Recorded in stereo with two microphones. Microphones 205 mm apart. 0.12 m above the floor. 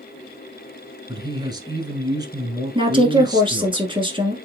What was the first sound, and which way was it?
A man speaking, 20° right (ahead or behind).